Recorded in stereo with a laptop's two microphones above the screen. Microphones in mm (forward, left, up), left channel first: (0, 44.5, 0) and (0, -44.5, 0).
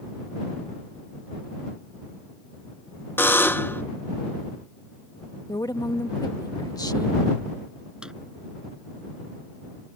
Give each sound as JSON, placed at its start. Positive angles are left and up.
{"t": 3.2, "sound": "a buzzer", "side_deg": 20}
{"t": 5.5, "sound": "a woman speaking", "side_deg": 45}
{"t": 8.0, "sound": "a drawer", "side_deg": -10}